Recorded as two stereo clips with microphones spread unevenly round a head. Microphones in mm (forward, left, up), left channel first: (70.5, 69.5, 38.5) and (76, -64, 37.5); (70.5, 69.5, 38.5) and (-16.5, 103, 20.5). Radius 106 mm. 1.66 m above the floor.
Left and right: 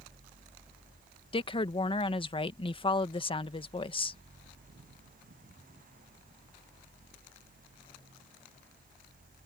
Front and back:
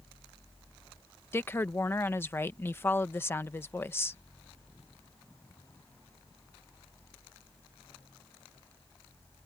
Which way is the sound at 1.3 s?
40° left.